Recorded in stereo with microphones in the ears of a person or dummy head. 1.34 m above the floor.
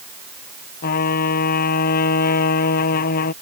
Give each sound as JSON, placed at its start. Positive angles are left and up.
{"t": 0.8, "sound": "a trumpet", "side_deg": 50}